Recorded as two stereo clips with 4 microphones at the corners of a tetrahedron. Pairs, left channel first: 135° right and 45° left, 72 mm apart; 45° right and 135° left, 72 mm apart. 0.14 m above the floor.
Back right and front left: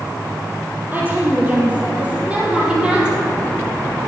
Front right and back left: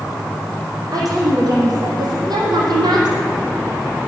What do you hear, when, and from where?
0.9 s a woman speaking: 110° left, 5 m; by 3.2 s 125° left, 4.5 m